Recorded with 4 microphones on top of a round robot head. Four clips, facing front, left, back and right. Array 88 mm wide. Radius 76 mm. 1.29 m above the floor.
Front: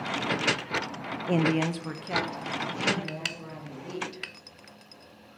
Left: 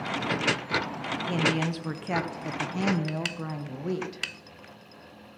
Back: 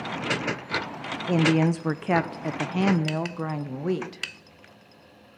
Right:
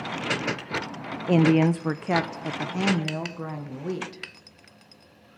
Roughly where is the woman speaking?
Right.